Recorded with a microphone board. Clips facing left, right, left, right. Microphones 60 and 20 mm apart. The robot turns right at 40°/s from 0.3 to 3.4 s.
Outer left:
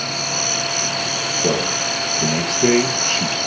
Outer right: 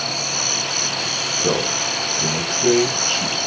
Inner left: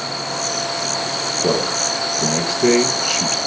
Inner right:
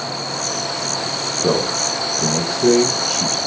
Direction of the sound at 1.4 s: 20° left (ahead or behind).